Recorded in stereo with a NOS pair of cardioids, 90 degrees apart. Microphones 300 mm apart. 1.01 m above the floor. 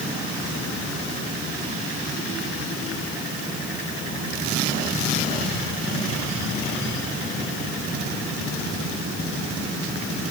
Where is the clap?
I don't hear a clap.